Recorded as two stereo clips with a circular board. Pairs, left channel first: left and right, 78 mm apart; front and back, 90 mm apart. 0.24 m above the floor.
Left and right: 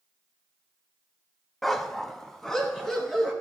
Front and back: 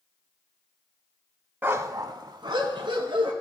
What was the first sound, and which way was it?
A dog barking, 175° left.